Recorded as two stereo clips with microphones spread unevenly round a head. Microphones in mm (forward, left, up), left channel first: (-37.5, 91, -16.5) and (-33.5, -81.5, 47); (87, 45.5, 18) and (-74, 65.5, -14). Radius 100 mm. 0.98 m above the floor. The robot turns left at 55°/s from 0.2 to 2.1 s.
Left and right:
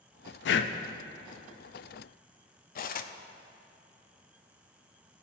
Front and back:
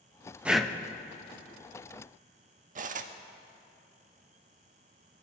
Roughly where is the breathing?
Left.